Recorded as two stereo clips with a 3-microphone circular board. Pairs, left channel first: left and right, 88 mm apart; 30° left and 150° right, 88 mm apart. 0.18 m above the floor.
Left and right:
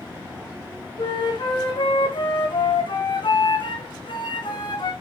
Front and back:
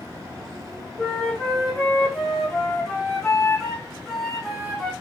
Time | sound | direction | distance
1.0 | a flute | 115° left | 2 m